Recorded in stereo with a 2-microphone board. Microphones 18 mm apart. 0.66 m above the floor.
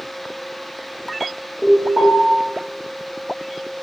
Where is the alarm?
40° right (ahead or behind), 1.9 m.